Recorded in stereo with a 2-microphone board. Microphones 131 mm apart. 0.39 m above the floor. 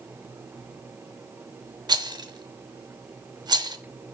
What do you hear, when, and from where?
1.9 s a rattle: 35° right (ahead or behind), 0.6 m